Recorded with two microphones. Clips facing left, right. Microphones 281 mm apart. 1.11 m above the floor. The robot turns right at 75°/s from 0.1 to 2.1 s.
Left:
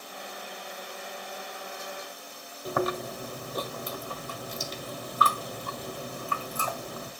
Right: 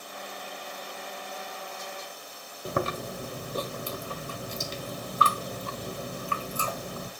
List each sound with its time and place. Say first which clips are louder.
2.6 s chewing: left 2 dB; 30° right (ahead or behind), 1.3 m